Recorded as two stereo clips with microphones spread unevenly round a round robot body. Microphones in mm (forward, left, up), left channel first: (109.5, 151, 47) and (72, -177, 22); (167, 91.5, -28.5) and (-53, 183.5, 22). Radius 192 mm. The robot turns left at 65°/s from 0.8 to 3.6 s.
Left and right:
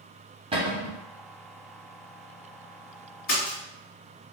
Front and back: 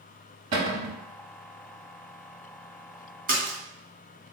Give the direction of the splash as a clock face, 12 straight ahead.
8 o'clock.